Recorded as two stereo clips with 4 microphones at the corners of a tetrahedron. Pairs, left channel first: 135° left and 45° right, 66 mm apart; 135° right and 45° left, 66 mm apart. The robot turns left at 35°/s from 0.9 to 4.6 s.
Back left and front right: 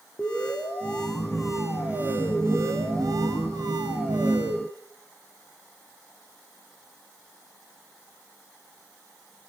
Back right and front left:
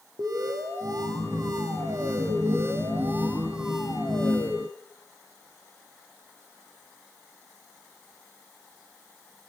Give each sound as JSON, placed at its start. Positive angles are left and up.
{"t": 0.2, "sound": "an alarm", "azimuth_deg": 60, "distance_m": 4.5}